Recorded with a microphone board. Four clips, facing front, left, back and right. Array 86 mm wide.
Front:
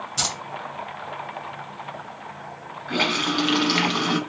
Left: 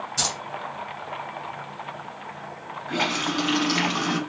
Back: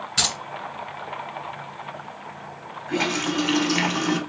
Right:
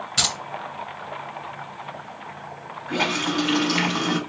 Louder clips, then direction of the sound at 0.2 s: Right 2 dB, back 1 dB; 125° right.